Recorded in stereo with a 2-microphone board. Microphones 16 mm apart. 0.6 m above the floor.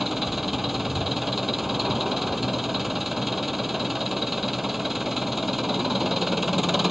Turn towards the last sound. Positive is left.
turn(degrees=-15)  # may be behind; listen again after turning